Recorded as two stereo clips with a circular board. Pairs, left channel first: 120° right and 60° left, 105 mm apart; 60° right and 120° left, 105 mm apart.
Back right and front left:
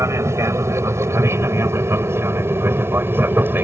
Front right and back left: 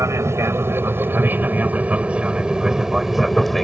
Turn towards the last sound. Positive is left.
turn(degrees=25)